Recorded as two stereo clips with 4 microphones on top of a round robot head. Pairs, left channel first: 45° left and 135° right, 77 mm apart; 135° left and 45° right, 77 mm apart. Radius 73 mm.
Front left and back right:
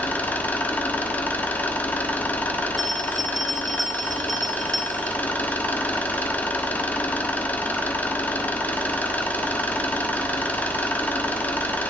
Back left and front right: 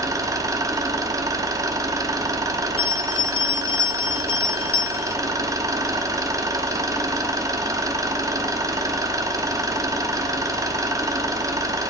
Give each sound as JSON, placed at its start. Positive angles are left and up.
{"t": 0.0, "sound": "an engine running", "azimuth_deg": -15, "distance_m": 1.0}
{"t": 2.8, "sound": "a bell", "azimuth_deg": 140, "distance_m": 0.7}